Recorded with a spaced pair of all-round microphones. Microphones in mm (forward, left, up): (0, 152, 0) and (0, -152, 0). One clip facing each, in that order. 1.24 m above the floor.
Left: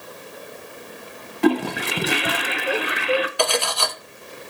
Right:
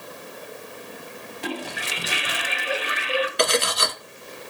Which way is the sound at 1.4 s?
65° left (ahead or behind).